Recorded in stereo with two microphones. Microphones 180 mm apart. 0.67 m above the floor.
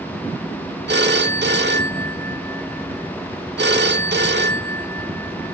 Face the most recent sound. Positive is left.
turn(degrees=-75)  # may be behind; listen again after turning